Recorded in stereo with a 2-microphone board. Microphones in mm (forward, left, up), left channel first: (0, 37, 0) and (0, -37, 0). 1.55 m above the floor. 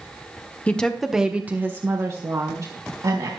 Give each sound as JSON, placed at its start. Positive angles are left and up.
{"t": 0.7, "sound": "a woman speaking", "side_deg": 15, "distance_m": 1.3}